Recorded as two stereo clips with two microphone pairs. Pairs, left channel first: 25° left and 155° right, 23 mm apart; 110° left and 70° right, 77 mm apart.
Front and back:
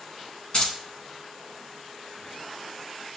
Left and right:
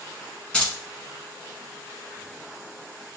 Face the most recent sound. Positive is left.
turn(degrees=45)